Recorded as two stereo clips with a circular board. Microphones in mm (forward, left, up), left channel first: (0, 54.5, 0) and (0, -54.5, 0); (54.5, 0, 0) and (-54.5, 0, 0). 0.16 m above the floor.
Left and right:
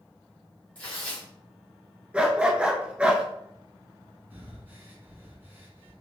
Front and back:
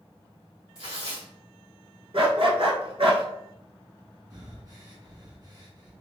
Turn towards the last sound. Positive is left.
turn(degrees=-155)